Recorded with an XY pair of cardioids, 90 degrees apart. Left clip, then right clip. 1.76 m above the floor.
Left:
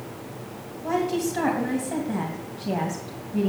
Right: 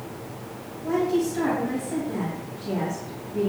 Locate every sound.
0.8 s a woman speaking: 60° left, 2.5 m